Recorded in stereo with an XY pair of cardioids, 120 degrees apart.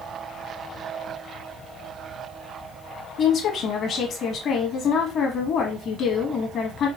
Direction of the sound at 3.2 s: 55° left.